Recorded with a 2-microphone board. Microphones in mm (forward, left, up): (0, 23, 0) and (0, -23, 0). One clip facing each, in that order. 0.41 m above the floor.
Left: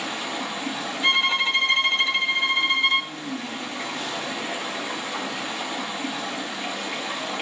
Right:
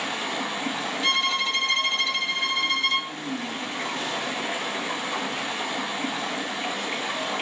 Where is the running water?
45° right (ahead or behind), 5 m.